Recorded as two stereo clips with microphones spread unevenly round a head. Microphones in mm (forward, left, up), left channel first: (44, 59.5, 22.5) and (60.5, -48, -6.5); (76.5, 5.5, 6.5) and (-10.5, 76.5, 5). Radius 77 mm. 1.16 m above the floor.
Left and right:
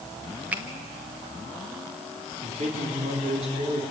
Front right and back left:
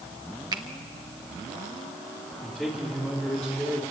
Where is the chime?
I don't hear a chime.